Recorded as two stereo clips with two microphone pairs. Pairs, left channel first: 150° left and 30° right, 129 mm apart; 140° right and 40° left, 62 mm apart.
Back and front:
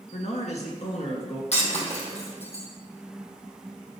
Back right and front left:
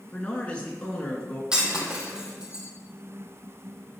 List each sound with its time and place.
0.1 s a man speaking: 150° left, 2.5 m
1.5 s breaking glass: 115° left, 2.5 m